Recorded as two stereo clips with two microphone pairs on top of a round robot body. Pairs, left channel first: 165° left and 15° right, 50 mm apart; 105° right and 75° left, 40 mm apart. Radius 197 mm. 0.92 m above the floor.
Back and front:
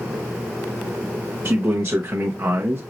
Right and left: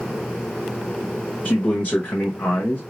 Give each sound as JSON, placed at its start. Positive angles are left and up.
{"t": 1.4, "sound": "a man speaking", "azimuth_deg": -60, "distance_m": 1.2}